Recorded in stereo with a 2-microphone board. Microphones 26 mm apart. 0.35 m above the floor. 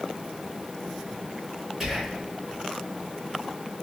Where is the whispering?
10° right (ahead or behind), 1.2 m.